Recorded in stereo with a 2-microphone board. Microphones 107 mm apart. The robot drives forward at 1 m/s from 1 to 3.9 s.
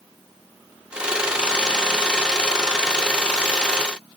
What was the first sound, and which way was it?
Only background noise.